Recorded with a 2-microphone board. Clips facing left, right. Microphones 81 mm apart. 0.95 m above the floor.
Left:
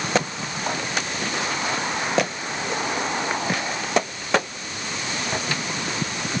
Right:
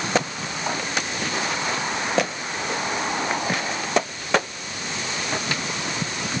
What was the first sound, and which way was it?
Only background noise.